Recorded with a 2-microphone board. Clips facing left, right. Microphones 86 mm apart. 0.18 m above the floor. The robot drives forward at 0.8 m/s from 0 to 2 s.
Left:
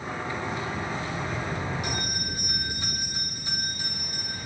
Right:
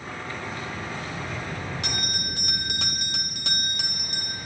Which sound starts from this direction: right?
A bell, at 1.8 s.